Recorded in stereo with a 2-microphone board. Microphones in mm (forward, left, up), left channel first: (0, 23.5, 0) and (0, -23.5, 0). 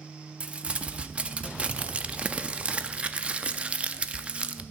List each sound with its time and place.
0.4 s crumpling: 25° right (ahead or behind), 0.5 m